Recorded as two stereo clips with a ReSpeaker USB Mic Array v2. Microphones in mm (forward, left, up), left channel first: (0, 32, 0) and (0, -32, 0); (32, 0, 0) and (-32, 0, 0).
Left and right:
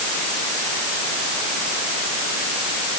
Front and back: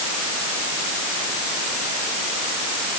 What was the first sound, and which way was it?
Only background noise.